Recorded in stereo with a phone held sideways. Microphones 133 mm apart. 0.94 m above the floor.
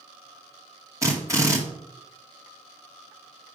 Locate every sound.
1.0 s a drill: 25° right (ahead or behind), 2 m